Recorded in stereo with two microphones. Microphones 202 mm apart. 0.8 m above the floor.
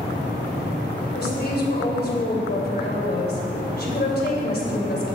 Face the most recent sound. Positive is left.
turn(degrees=55)  # may be behind; listen again after turning